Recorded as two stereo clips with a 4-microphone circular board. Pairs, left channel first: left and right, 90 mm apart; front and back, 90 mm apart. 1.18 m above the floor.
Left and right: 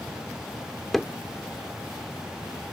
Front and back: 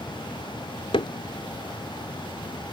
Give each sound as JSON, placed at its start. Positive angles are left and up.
{"t": 0.9, "sound": "hammering", "azimuth_deg": 5}